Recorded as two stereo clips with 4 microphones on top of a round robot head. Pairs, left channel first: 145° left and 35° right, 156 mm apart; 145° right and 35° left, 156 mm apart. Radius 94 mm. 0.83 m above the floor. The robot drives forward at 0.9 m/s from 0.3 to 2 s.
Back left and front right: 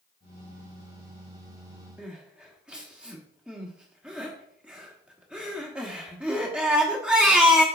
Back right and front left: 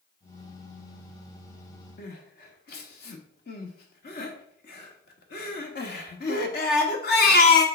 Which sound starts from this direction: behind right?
Crying, at 2.0 s.